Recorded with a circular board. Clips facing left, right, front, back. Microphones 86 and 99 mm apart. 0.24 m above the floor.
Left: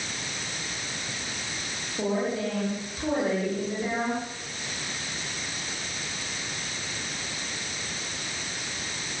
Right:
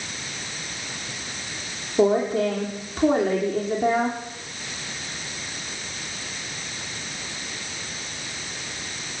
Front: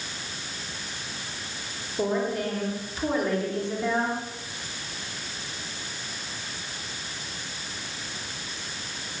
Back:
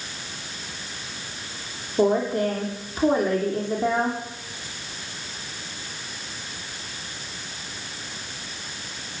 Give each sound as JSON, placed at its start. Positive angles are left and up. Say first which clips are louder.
{"t": 2.0, "sound": "a woman speaking", "louder": "right 8 dB, back 6 dB", "azimuth_deg": -130, "distance_m": 8.5}